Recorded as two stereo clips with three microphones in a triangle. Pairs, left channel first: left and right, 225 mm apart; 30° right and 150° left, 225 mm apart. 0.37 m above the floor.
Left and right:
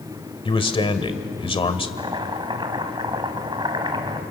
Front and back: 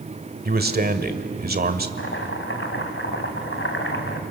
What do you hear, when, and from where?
0.5 s a man speaking: 145° left, 1.6 m
2.0 s chopping: 25° right, 2 m